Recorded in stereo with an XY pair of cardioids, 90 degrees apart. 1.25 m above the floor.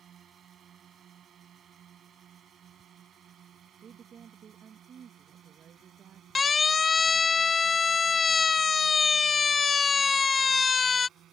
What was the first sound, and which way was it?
A drone, 65° right.